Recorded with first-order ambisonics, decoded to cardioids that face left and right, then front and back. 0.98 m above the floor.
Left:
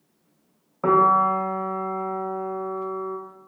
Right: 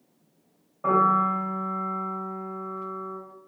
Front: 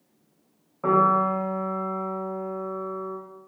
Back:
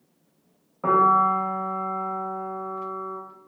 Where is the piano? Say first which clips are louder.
Left 4 dB, back 2 dB; 90° left, 0.6 m.